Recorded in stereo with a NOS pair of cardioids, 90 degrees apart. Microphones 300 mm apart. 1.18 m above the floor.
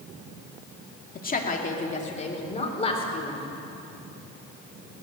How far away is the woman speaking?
About 2 m.